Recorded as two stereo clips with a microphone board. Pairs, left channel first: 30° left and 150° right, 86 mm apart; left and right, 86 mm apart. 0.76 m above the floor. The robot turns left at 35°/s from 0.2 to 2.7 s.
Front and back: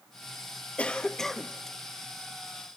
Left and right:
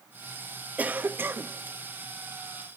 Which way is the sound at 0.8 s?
35° right.